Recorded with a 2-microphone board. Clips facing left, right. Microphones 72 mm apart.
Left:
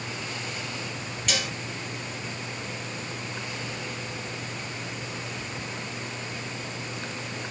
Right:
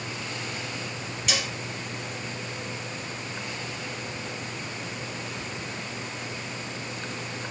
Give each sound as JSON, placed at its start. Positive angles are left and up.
{"t": 1.3, "sound": "dishes clattering", "side_deg": -5, "distance_m": 1.8}